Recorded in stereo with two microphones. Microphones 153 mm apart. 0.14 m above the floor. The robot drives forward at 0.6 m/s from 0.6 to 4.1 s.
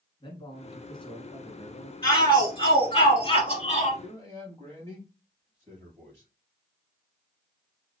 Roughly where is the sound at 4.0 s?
Centre.